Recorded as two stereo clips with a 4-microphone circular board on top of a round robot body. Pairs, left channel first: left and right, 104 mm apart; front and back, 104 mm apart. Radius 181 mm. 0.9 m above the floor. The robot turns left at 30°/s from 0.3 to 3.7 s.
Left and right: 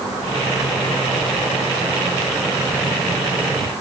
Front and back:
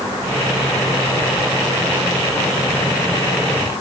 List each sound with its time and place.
Only background noise.